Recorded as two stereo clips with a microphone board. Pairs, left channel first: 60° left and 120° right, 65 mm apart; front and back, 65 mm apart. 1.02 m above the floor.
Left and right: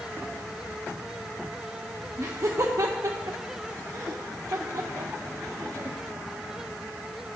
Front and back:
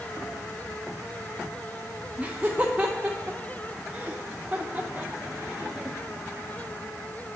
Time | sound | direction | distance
2.2 | laughter | 110° right | 0.7 m